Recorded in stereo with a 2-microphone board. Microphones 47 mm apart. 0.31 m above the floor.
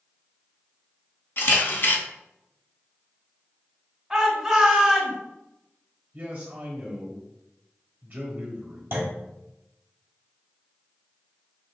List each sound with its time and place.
1.4 s a camera shutter: 55° left (ahead or behind), 0.7 m
4.1 s a shout: 10° right (ahead or behind), 1.2 m
6.1 s a man speaking: 40° right (ahead or behind), 1.4 m
8.9 s a clunk: 55° right (ahead or behind), 1.3 m